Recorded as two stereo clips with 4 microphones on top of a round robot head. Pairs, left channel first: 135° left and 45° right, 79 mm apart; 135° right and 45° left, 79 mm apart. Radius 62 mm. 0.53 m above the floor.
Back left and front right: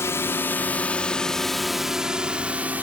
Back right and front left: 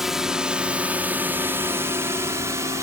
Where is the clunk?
I don't hear a clunk.